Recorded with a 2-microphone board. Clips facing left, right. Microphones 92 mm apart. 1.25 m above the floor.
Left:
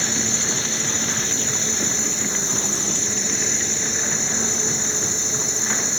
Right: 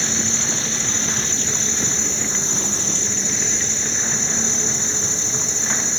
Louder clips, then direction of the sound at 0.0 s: Even; 15° left (ahead or behind).